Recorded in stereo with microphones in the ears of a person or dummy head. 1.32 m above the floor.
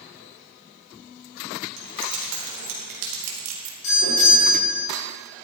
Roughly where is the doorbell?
Left.